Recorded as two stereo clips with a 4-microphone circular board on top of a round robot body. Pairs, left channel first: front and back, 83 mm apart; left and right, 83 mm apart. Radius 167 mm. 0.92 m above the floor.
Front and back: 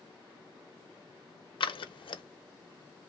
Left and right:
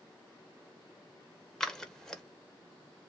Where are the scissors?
5° left, 0.8 m.